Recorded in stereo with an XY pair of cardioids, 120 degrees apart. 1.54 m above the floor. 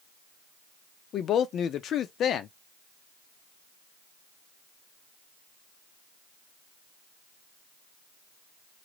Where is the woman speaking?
55° left, 0.5 m.